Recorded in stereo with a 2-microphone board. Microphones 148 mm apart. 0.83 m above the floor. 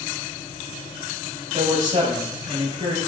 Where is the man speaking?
55° right (ahead or behind), 4.5 m; by 3.0 s 45° right (ahead or behind), 4.5 m.